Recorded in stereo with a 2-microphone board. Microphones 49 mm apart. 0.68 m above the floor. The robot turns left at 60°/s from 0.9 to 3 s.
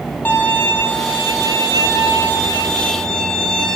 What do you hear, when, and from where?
0.2 s a violin: 145° left, 6 m; by 3.8 s 20° left, 6 m